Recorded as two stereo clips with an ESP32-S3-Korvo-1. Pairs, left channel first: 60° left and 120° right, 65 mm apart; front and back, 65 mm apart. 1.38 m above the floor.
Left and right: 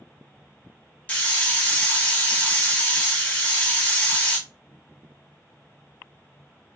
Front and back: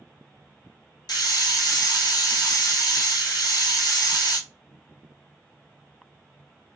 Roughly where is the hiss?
Ahead.